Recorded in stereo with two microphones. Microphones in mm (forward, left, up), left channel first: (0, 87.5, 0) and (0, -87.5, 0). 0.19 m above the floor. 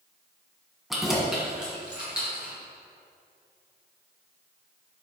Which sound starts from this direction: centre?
Keys jangling, at 0.9 s.